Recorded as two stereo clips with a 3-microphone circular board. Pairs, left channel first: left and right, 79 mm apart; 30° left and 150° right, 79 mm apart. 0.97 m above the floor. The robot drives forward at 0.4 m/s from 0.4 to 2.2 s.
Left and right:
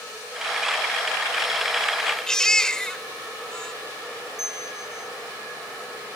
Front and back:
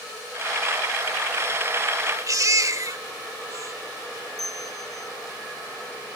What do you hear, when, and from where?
2.3 s a baby crying: 170° left
4.4 s a bell: 5° right